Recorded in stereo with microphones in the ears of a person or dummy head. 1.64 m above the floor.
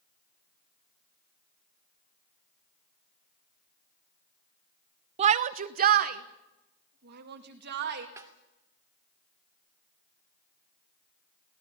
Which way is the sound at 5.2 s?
30° right (ahead or behind).